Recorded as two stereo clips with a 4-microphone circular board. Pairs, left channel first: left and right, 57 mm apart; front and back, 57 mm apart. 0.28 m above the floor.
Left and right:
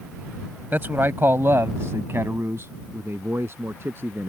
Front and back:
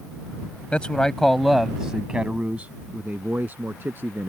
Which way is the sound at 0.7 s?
55° right.